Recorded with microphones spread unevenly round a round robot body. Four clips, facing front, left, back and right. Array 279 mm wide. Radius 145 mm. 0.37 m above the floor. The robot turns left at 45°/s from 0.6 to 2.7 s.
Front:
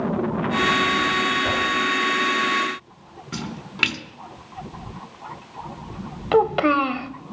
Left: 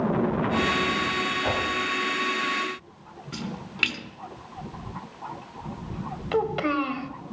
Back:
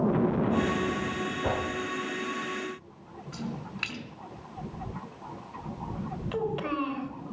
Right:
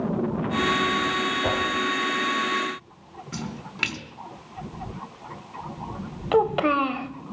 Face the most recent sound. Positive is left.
turn(degrees=-20)